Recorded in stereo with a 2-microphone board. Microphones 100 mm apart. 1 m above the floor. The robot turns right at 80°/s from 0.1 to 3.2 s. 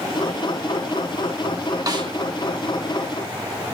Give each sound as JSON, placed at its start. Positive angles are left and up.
{"t": 1.9, "sound": "a snare drum", "side_deg": -35, "distance_m": 1.1}